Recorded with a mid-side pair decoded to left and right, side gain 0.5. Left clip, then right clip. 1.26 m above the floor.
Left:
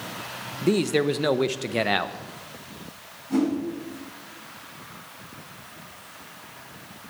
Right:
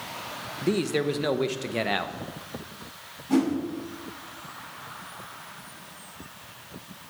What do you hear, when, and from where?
0.6 s a man speaking: 20° left, 0.6 m
3.3 s a whoosh: 55° right, 5 m